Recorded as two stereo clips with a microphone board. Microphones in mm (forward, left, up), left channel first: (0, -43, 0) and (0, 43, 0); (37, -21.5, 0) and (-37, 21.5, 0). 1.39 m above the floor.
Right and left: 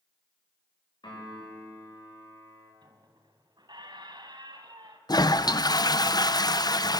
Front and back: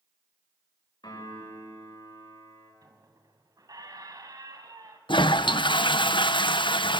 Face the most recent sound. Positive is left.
turn(degrees=-50)